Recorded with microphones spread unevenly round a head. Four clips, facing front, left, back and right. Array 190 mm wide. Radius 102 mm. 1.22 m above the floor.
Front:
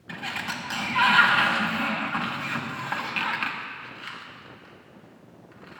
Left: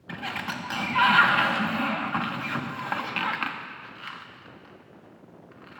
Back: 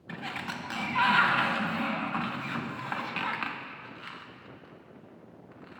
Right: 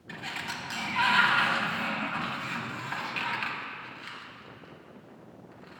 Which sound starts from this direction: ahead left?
A sliding door, at 0.1 s.